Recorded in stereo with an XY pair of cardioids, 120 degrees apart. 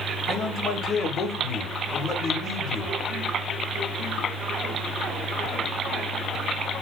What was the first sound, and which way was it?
A man speaking, 45° left.